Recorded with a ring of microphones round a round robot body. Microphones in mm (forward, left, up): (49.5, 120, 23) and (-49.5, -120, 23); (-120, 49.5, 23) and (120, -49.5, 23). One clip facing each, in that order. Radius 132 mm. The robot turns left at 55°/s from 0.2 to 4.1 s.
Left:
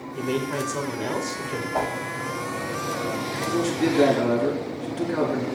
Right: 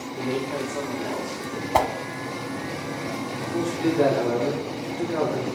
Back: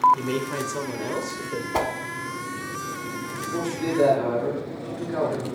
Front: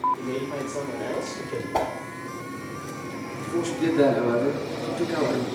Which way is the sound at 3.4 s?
50° left.